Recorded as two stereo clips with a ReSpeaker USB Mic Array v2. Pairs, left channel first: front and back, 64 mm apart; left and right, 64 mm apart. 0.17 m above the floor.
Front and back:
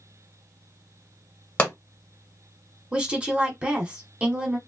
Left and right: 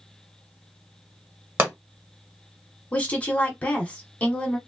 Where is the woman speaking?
130° left, 1.1 m.